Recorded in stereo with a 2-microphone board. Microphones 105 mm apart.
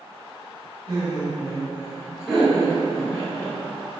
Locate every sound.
0.9 s laughter: 35° right (ahead or behind), 1.2 m; by 3.6 s 30° left (ahead or behind), 1.2 m